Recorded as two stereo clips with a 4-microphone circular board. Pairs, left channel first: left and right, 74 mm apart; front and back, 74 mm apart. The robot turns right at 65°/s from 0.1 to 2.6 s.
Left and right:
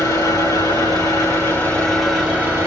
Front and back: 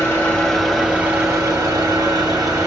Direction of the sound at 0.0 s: 55° left.